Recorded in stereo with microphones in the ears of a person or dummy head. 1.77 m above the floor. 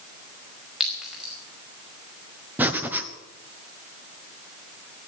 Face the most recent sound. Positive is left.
turn(degrees=-10)  # may be behind; listen again after turning